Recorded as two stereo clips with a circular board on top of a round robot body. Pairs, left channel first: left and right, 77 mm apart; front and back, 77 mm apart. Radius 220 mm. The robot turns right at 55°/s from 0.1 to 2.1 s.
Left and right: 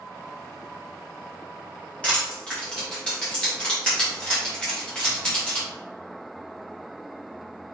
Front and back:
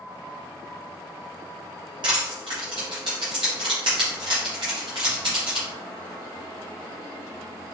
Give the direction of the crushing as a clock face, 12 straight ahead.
7 o'clock.